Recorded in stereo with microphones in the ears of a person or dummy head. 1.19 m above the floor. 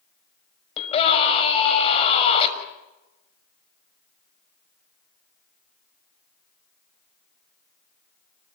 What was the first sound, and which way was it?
A scream, 30° left (ahead or behind).